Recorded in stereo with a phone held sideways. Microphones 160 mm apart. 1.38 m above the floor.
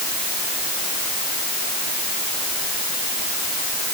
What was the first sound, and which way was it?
Only background noise.